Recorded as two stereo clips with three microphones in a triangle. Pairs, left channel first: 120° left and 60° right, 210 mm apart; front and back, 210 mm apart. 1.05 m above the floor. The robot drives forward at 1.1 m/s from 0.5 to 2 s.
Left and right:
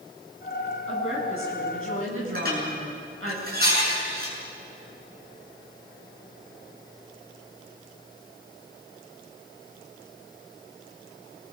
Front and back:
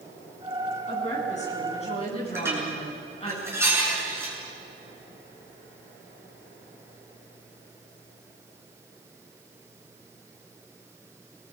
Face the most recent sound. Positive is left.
turn(degrees=-100)